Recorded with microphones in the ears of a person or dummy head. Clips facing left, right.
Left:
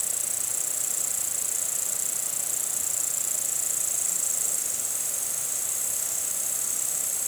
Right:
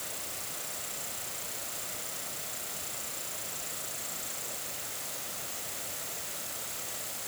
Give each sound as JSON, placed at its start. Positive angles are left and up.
{"t": 0.0, "sound": "an insect", "side_deg": 75}